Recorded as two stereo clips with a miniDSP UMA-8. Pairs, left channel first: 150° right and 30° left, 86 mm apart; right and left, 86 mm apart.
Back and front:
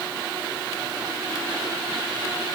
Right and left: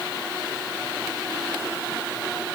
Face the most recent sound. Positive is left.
No sound to turn to.